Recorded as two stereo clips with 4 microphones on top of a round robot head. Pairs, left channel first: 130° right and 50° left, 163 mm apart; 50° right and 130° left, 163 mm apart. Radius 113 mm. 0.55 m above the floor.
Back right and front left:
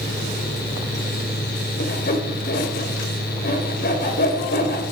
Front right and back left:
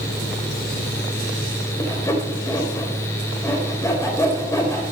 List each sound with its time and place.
1.8 s sawing: 120° right, 3 m